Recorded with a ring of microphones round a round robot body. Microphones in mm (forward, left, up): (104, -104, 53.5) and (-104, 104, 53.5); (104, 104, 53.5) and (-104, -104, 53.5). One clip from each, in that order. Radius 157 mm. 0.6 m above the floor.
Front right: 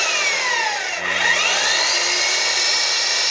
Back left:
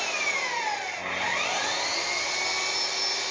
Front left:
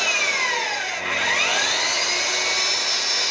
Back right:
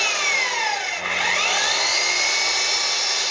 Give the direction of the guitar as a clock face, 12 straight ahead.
I don't hear a guitar.